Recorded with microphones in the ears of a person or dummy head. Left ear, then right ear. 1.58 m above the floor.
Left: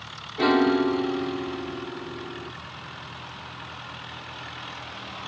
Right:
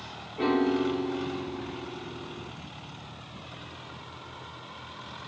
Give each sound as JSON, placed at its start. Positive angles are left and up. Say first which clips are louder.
{"t": 0.4, "sound": "a piano", "louder": "left 5 dB", "side_deg": 35}